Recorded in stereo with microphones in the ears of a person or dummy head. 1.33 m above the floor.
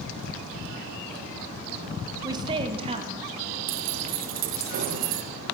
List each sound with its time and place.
2.2 s a woman speaking: 20° right (ahead or behind), 1.3 m; by 3.6 s 40° right (ahead or behind), 3 m
3.7 s keys jangling: 45° right (ahead or behind), 0.8 m